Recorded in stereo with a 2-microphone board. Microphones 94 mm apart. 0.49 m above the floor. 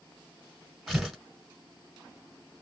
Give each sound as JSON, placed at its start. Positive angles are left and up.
{"t": 0.9, "sound": "tearing paper", "side_deg": 0, "distance_m": 1.1}